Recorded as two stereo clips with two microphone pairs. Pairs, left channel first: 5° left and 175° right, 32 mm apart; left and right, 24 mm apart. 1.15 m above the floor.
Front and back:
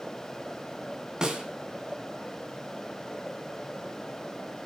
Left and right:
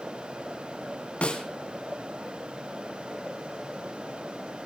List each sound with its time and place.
1.2 s a snare drum: 120° left, 3 m